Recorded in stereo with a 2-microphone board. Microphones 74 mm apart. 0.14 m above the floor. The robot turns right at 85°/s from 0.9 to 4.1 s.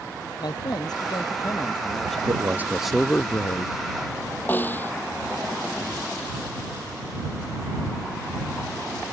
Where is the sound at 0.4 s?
75° left; by 2.2 s straight behind.